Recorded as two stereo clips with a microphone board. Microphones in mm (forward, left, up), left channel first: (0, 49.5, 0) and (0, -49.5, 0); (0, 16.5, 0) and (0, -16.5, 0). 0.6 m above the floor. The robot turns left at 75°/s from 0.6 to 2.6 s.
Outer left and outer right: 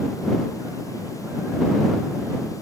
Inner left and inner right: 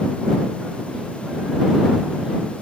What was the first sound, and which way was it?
Only background noise.